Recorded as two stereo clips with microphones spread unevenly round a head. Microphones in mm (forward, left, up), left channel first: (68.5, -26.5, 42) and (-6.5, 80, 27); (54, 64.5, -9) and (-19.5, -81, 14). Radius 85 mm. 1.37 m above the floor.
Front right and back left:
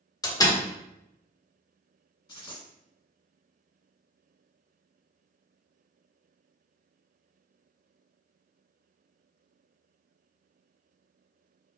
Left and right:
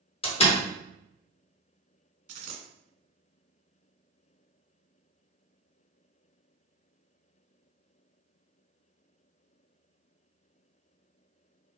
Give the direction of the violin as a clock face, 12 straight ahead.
No violin in this recording.